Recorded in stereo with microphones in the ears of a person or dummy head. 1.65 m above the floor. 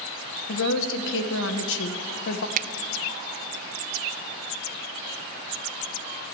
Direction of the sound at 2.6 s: 45° right (ahead or behind).